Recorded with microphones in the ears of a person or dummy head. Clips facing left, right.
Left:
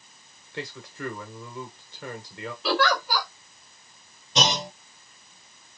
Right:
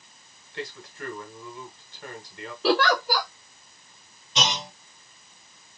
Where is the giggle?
35° right (ahead or behind), 0.8 m.